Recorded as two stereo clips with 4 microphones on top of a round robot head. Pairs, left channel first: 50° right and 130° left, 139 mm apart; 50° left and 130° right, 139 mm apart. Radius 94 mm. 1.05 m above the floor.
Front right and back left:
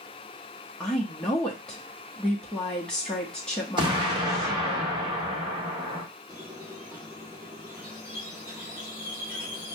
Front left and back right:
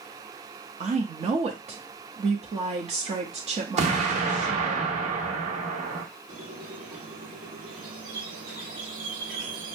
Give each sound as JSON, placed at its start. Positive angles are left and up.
{"t": 0.8, "sound": "a woman speaking", "azimuth_deg": -135, "distance_m": 1.0}
{"t": 3.8, "sound": "an explosion", "azimuth_deg": -170, "distance_m": 1.3}
{"t": 6.3, "sound": "a squeak", "azimuth_deg": -155, "distance_m": 1.6}